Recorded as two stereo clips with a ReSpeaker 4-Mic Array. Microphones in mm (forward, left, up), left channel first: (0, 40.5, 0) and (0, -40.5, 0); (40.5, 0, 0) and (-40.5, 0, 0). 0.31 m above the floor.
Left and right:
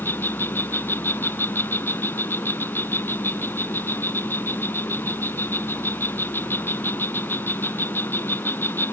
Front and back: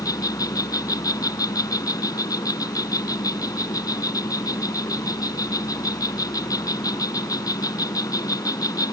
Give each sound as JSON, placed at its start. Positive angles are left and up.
{"t": 0.0, "sound": "an insect", "azimuth_deg": 30}